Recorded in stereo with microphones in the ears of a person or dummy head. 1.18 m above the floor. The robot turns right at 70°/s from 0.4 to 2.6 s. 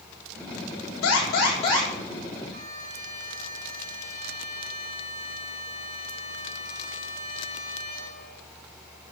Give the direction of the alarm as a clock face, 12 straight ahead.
9 o'clock.